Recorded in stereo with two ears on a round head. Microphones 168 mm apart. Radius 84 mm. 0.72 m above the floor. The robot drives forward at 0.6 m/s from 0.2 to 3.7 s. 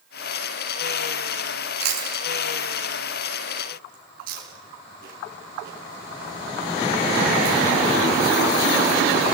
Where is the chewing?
55° right (ahead or behind), 7 m; by 7.6 s 50° right (ahead or behind), 7.5 m.